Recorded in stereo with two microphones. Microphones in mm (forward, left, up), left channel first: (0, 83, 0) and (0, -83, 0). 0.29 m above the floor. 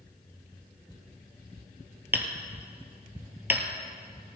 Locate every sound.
2.1 s hammering: 10° right (ahead or behind), 1.6 m